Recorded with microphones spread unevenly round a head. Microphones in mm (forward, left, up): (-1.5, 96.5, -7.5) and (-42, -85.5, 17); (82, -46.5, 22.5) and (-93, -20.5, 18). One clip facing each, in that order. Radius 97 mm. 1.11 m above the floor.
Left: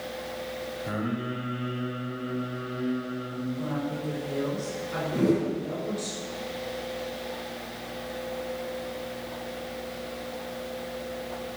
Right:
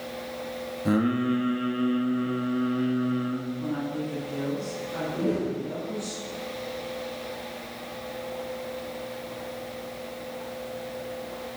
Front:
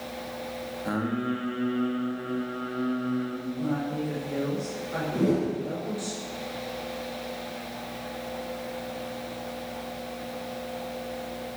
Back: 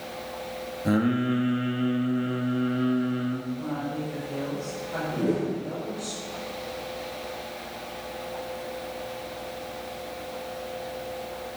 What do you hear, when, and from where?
0.8 s singing: 130° right, 2.5 m
3.6 s a woman speaking: 60° left, 6.5 m
5.1 s a whoosh: 40° left, 4.5 m